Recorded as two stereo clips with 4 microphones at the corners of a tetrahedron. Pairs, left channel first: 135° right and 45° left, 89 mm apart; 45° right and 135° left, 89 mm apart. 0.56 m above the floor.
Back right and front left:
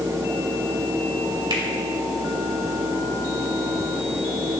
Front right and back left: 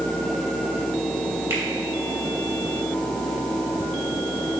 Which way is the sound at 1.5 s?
75° left.